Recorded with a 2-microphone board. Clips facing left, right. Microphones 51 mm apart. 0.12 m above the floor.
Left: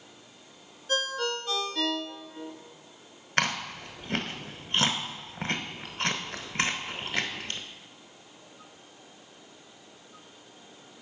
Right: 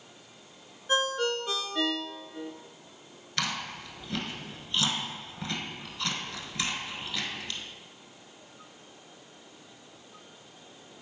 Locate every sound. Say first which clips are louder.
0.9 s a ringtone: right 2 dB; 20° right (ahead or behind), 0.6 m
3.4 s chewing: left 5 dB; 50° left (ahead or behind), 0.8 m